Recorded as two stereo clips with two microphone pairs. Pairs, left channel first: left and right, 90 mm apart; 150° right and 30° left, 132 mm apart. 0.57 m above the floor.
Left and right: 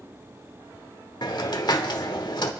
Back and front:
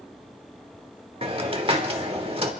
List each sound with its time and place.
1.2 s a hiss: 65° left, 1.2 m